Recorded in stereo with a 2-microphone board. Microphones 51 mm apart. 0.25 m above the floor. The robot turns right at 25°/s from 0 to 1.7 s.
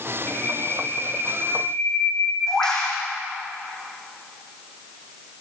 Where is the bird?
135° left, 7 m; by 3.0 s 170° left, 7 m.